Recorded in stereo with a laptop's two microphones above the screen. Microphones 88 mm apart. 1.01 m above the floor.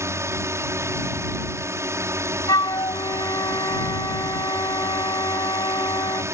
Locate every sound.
0.0 s a drone: 35° right (ahead or behind)
2.5 s a flute: 55° left (ahead or behind)